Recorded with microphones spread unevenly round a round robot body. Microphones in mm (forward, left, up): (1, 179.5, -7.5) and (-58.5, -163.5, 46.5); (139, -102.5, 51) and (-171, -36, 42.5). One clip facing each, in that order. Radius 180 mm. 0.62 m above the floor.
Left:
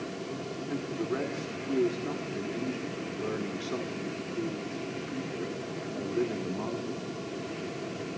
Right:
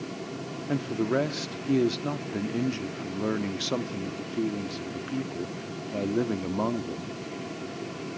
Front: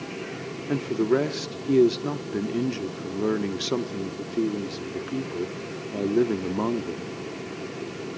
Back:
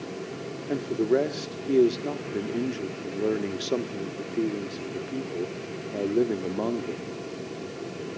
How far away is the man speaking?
About 1.2 m.